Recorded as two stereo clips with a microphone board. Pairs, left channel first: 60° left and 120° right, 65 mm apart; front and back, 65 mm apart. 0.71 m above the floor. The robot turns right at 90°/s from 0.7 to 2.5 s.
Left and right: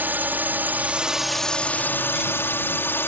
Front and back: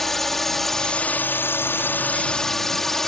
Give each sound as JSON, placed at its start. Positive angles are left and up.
{"t": 0.0, "sound": "a drone", "azimuth_deg": -85}